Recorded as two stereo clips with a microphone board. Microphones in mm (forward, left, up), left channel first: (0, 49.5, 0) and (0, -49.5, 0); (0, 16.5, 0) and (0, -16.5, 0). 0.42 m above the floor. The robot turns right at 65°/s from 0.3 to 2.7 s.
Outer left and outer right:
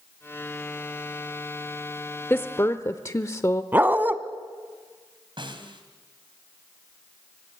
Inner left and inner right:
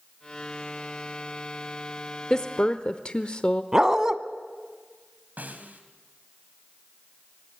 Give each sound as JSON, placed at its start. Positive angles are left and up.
{"t": 2.3, "sound": "a woman speaking", "side_deg": 20, "distance_m": 0.8}
{"t": 3.7, "sound": "a dog barking", "side_deg": -20, "distance_m": 1.1}
{"t": 5.4, "sound": "a snare drum", "side_deg": -55, "distance_m": 3.0}